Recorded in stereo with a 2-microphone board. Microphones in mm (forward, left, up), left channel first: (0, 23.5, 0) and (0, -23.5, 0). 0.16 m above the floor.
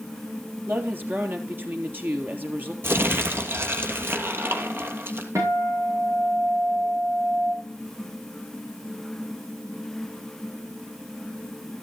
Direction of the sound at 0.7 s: 40° right (ahead or behind).